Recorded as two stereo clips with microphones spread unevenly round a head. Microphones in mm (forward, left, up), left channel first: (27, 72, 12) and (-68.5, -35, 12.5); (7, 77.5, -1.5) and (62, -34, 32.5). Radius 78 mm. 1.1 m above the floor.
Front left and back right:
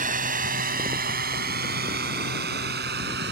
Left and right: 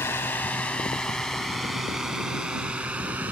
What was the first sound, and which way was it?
A drone, 165° right.